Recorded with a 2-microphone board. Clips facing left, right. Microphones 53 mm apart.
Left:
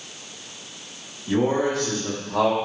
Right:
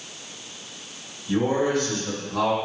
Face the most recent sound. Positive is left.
turn(degrees=60)  # may be behind; listen again after turning